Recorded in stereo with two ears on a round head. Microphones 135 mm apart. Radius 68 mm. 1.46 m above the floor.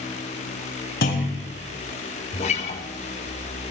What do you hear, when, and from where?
1.0 s a clunk: 70° left (ahead or behind), 7.5 m
2.3 s a guitar: 45° left (ahead or behind), 3 m